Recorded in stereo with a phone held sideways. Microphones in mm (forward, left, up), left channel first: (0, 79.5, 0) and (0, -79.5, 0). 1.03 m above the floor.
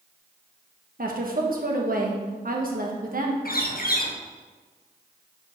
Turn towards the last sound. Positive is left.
turn(degrees=65)  # may be behind; listen again after turning